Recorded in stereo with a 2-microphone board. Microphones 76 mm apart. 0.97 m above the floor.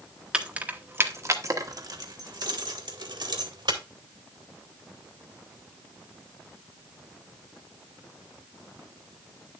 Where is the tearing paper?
No tearing paper in this recording.